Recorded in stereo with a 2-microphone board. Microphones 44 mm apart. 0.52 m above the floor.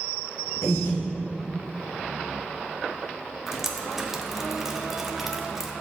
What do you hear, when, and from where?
0.6 s breathing: 80° left, 3 m
3.5 s dripping: 10° right (ahead or behind), 0.9 m